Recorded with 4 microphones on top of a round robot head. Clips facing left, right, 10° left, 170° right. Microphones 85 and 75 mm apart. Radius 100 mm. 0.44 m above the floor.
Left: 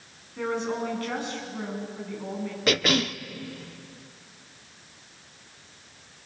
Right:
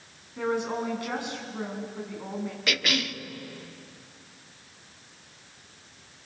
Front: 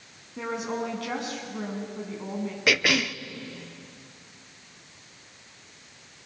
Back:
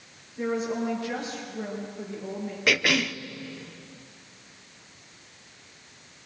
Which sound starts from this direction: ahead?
A woman speaking, at 0.4 s.